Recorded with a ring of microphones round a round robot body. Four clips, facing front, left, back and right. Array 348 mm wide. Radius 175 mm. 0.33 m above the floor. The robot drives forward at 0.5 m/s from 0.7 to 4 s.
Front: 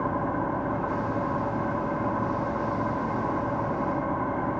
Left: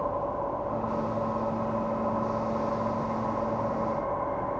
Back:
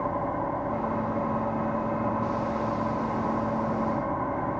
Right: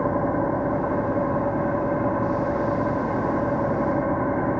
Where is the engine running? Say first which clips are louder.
Right 7 dB, front 1 dB; 80° right; by 4.6 s 85° right.